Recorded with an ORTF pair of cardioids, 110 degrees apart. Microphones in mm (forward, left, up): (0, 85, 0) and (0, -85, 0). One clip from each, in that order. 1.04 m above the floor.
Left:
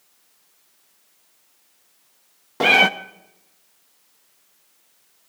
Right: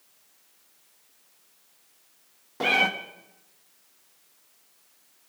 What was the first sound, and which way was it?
A cat meowing, 35° left.